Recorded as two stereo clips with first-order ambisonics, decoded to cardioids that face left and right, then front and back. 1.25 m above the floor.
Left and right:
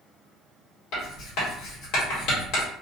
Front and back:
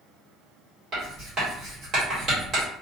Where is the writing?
125° left, 1.3 m.